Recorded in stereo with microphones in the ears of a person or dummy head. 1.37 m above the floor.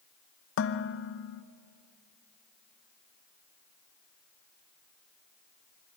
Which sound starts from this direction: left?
Dishes clattering, at 0.6 s.